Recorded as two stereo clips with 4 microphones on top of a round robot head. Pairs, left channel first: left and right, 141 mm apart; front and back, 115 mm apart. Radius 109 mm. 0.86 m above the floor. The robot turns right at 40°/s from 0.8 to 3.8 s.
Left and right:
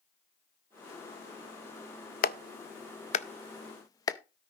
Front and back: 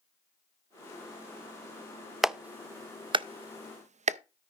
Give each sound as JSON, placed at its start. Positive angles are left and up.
{"t": 2.2, "sound": "a clap", "azimuth_deg": 95, "distance_m": 0.6}